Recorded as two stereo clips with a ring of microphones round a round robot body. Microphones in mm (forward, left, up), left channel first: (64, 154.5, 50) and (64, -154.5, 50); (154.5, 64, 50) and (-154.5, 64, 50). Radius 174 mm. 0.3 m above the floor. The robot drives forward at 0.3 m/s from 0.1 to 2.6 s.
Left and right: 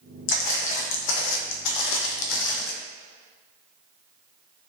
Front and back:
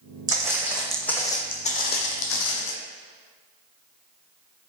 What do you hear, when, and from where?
0.3 s footsteps: 100° left, 0.9 m; by 2.7 s 30° left, 0.7 m